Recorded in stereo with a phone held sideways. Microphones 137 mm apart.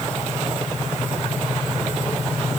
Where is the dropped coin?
No dropped coin in this recording.